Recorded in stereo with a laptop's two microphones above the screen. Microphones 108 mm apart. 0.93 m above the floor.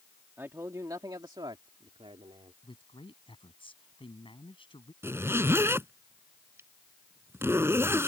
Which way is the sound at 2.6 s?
55° left (ahead or behind).